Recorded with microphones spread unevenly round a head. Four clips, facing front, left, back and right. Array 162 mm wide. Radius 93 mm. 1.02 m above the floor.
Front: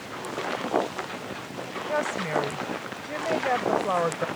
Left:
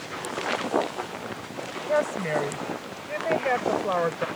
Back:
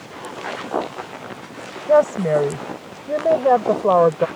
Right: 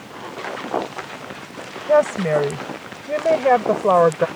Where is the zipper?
I don't hear a zipper.